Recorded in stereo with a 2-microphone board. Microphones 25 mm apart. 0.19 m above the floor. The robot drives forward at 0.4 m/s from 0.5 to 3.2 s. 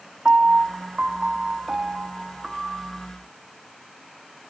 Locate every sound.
0.2 s a piano: 45° right (ahead or behind), 0.5 m; by 3.1 s 20° right (ahead or behind), 1.0 m